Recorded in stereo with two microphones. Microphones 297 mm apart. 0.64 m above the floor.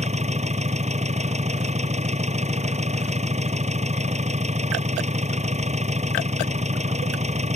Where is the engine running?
20° right (ahead or behind).